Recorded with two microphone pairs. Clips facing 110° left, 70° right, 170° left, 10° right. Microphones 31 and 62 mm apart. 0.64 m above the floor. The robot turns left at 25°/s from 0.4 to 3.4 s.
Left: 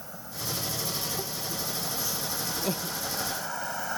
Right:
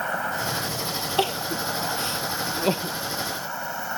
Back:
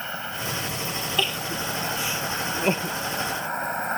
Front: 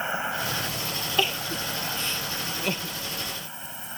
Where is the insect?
80° right; by 4.0 s 155° right.